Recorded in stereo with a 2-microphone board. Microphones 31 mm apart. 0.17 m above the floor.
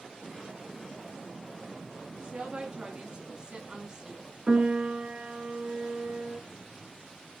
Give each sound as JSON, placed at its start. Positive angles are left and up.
{"t": 2.1, "sound": "a woman speaking", "side_deg": -25, "distance_m": 2.5}
{"t": 4.5, "sound": "a piano", "side_deg": -25, "distance_m": 2.5}